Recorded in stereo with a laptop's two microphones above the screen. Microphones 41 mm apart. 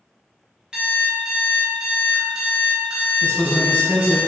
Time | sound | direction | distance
0.7 | an alarm clock | 20° right (ahead or behind) | 1.0 m
3.2 | a man speaking | 40° left (ahead or behind) | 0.8 m